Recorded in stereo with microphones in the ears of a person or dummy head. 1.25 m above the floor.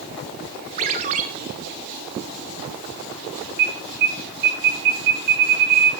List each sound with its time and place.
0.8 s a ringtone: 40° right (ahead or behind), 1.0 m
3.6 s an alarm: 65° right (ahead or behind), 4 m